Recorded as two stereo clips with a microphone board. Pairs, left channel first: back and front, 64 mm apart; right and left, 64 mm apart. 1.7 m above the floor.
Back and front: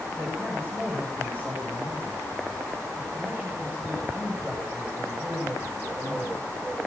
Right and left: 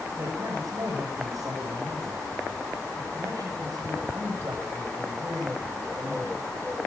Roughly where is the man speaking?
Ahead left.